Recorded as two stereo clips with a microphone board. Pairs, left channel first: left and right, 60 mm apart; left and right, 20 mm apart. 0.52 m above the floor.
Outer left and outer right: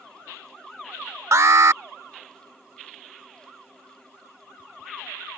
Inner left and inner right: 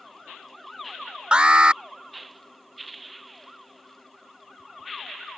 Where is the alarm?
55° right (ahead or behind).